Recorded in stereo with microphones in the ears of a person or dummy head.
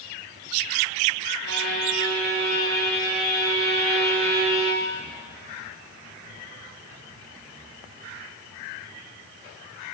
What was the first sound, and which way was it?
A violin, 55° right (ahead or behind).